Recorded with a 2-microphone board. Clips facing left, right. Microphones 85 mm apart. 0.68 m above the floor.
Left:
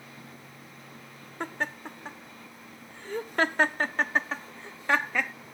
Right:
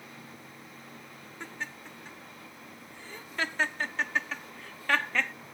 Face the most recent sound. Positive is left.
turn(degrees=10)  # may be behind; listen again after turning